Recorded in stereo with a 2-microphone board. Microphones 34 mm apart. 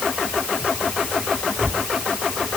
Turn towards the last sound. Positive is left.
No sound to turn to.